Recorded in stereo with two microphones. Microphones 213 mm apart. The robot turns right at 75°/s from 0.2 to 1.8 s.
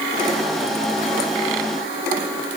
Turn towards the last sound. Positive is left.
No sound to turn to.